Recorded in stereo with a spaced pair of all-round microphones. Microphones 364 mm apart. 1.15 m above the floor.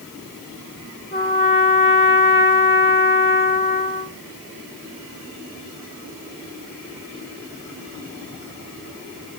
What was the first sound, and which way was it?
A trumpet, 25° left (ahead or behind).